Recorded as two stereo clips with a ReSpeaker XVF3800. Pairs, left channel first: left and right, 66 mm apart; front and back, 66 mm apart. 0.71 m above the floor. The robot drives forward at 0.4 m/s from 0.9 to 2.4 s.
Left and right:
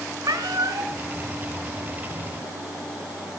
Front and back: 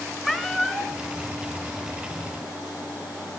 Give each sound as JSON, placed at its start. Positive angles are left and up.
{"t": 0.2, "sound": "a cat meowing", "azimuth_deg": -90, "distance_m": 1.9}